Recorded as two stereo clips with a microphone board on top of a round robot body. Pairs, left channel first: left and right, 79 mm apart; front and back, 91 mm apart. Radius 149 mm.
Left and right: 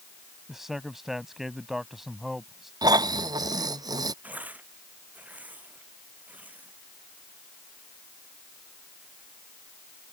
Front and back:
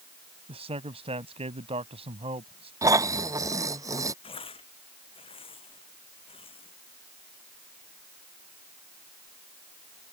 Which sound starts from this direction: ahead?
Tearing paper, at 4.2 s.